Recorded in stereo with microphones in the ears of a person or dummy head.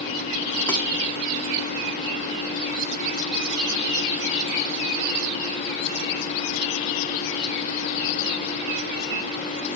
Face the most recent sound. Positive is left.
turn(degrees=20)  # may be behind; listen again after turning